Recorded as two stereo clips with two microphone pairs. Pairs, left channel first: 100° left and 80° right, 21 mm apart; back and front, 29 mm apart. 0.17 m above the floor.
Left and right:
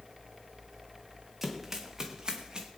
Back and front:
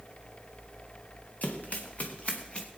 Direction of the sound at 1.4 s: 155° right.